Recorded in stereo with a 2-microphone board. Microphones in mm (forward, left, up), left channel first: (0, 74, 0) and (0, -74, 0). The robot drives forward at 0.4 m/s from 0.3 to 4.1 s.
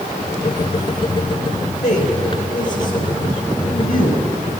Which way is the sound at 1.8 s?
75° left (ahead or behind).